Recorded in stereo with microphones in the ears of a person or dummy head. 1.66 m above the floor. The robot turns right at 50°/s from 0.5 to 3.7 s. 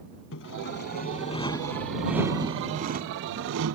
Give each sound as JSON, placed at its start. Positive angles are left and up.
{"t": 0.3, "sound": "sawing", "azimuth_deg": 105}